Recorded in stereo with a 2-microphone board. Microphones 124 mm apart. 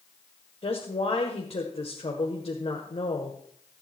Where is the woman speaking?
50° left (ahead or behind), 1.8 m.